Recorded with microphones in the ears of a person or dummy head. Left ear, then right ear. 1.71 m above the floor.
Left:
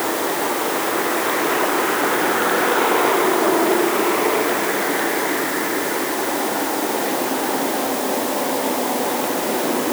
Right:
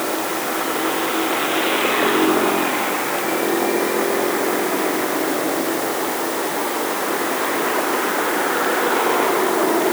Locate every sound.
Only background noise.